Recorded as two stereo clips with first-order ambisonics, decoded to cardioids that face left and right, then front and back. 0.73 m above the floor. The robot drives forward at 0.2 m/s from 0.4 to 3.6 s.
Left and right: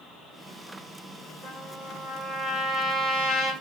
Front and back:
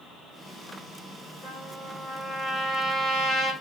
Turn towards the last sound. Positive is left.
turn(degrees=70)